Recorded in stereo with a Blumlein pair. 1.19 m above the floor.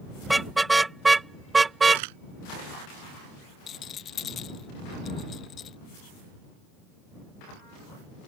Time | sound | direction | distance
0.2 | a car horn | 5° right | ?
1.9 | a camera shutter | 50° right | ?
3.7 | a rattle | 25° left | ?